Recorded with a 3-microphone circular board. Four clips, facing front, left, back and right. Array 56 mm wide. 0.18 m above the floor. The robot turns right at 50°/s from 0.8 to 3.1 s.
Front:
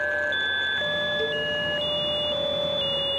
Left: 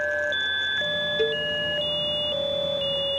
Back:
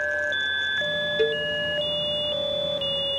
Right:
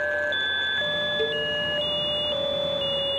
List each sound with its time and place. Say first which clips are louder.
1.2 s a cowbell: left 4 dB, back 3 dB; 160° left, 1.3 m; by 1.4 s 175° left, 1.3 m